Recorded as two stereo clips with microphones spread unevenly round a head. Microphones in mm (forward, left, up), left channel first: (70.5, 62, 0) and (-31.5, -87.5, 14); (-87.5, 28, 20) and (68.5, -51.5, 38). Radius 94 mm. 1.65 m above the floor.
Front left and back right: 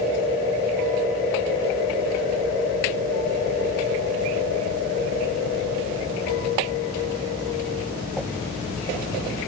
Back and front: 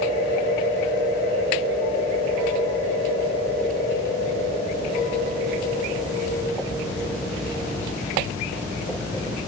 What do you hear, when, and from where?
Only background noise.